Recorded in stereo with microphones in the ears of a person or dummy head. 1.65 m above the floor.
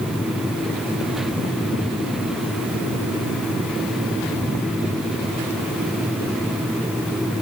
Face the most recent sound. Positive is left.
No sound to turn to.